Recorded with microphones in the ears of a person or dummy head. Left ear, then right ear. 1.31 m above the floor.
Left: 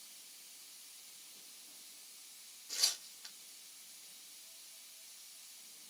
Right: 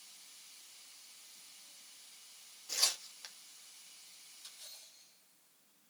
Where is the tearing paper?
80° right, 2.5 m.